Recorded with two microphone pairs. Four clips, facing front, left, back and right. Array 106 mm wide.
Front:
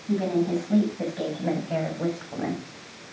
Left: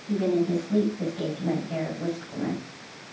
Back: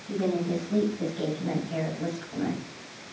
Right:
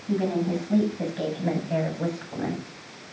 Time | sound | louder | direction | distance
0.1 | a woman speaking | left 1 dB, front 3 dB | 30° right | 7 m